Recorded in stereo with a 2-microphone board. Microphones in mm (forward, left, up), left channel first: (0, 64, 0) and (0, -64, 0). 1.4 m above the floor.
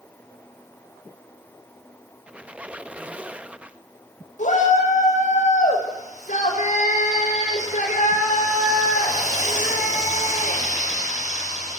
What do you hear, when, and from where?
2.3 s a squeak: 10° right (ahead or behind), 0.9 m
4.4 s a shout: 85° left, 7.5 m